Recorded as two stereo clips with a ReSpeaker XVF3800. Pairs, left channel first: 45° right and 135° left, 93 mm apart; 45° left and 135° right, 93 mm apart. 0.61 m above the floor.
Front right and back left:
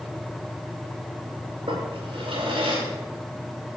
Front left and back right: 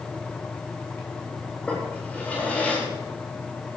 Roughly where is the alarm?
I don't hear an alarm.